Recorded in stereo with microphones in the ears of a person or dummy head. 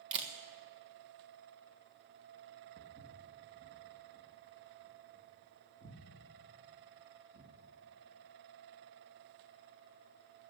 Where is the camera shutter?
30° right (ahead or behind), 1.4 m.